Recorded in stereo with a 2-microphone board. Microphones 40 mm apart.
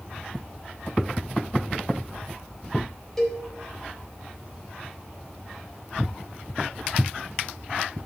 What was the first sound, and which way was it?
A cowbell, 10° left (ahead or behind).